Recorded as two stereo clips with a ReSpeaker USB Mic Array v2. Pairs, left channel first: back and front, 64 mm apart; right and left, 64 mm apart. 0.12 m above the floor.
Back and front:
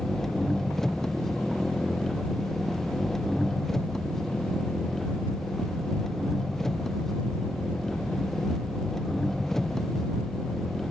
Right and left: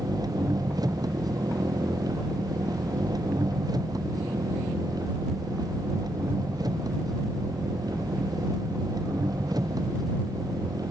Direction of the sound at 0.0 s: 95° left.